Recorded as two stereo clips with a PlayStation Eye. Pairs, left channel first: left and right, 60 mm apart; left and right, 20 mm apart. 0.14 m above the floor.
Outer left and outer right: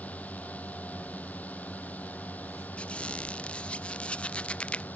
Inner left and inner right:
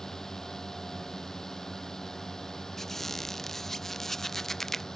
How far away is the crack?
I don't hear a crack.